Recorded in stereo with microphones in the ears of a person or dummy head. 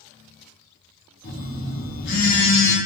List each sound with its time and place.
1.2 s a phone buzzing: 45° left (ahead or behind), 1.3 m